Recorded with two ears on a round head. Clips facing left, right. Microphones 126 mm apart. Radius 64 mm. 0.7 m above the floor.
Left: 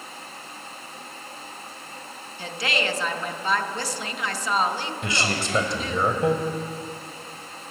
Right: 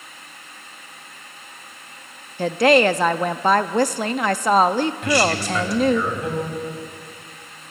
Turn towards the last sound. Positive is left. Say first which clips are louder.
# right 5 dB
turn(degrees=25)  # may be behind; listen again after turning